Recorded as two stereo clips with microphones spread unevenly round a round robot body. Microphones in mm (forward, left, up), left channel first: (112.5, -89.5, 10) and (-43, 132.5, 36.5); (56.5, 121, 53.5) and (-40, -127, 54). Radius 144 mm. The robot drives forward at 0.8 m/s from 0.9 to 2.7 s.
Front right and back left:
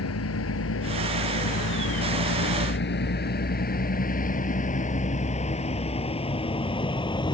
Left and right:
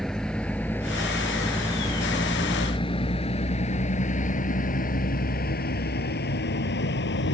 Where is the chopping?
No chopping in this recording.